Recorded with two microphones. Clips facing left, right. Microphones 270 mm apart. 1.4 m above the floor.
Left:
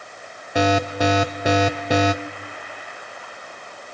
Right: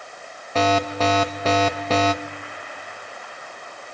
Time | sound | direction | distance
0.6 | an alarm | 15° left (ahead or behind) | 1.0 m